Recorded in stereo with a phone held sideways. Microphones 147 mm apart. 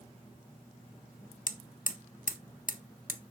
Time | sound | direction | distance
1.5 | hammering | 65° left (ahead or behind) | 1.3 m